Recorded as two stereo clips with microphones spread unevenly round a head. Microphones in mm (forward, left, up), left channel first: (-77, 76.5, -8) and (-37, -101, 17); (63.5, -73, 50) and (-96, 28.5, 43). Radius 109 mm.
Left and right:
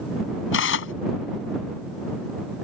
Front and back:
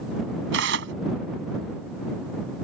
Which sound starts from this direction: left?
Tearing paper, at 0.5 s.